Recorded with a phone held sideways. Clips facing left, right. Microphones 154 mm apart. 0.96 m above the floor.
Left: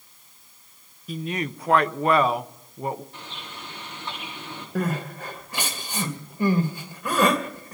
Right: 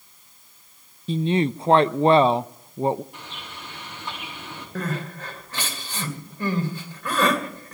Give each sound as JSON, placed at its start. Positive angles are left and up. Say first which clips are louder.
{"t": 1.1, "sound": "a woman speaking", "louder": "right 8 dB", "side_deg": -30, "distance_m": 0.5}
{"t": 3.1, "sound": "a bird", "louder": "even", "side_deg": -10, "distance_m": 8.0}
{"t": 4.8, "sound": "crying", "louder": "left 3 dB", "side_deg": 15, "distance_m": 2.5}